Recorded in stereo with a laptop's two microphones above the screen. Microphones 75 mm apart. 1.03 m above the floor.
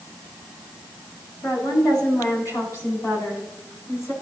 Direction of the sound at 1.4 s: 60° left (ahead or behind).